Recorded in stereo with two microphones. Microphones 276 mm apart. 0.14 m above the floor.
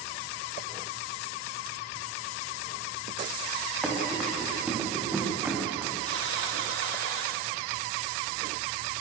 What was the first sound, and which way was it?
Running footsteps, centre (ahead or behind).